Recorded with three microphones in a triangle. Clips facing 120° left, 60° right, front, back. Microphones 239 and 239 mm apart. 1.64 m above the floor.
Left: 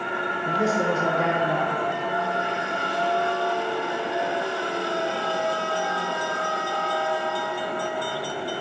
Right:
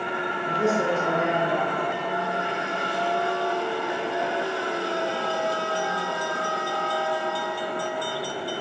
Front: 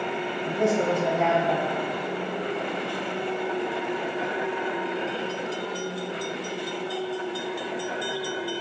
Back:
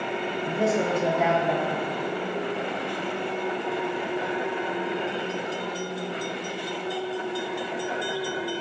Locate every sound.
0.5 s a man speaking: 100° left, 1.3 m